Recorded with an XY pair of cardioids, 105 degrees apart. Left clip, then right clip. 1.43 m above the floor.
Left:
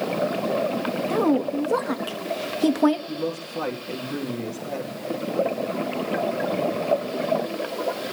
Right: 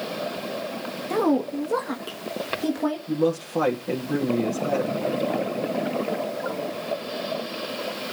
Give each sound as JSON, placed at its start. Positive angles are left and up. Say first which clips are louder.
{"t": 1.1, "sound": "a woman speaking", "louder": "even", "azimuth_deg": -5, "distance_m": 1.6}
{"t": 3.1, "sound": "a man speaking", "louder": "right 5 dB", "azimuth_deg": -60, "distance_m": 2.5}